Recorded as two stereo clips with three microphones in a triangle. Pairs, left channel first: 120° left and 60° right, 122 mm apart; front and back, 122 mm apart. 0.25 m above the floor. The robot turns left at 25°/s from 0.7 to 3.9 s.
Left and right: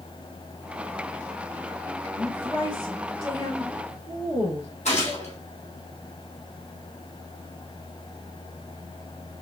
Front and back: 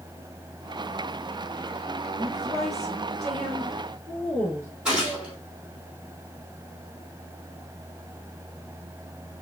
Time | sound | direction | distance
2.1 | a woman speaking | 170° right | 2.5 m
4.8 | a gunshot | 100° left | 2.5 m